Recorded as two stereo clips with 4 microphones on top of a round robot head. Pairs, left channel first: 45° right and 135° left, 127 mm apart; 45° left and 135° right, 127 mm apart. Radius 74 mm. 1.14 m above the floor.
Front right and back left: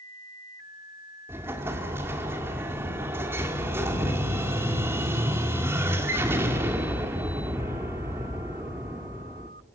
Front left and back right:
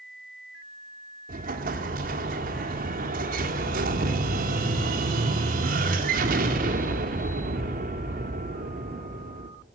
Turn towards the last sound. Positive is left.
turn(degrees=-150)